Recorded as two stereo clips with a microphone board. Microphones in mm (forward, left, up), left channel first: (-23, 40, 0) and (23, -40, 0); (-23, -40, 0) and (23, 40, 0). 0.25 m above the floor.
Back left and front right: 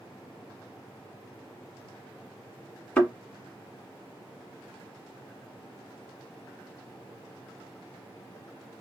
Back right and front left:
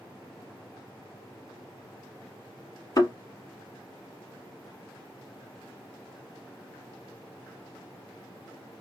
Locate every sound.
3.0 s a thud: 165° right, 1.2 m